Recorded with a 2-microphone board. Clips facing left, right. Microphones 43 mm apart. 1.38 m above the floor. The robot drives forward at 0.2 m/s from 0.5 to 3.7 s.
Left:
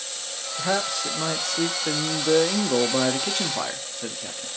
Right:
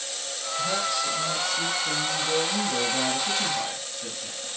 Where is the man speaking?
55° left (ahead or behind), 0.7 m; by 4.5 s 60° left (ahead or behind), 0.6 m.